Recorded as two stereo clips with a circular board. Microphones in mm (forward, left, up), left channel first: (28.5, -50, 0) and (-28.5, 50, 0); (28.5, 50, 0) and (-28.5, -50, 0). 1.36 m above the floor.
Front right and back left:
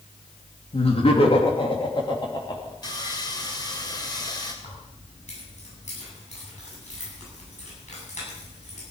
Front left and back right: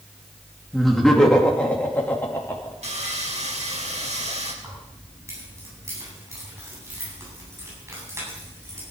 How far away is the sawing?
About 2.5 m.